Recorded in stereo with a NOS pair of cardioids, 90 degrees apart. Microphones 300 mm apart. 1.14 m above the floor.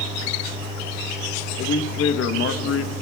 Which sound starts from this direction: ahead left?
A man speaking, at 1.6 s.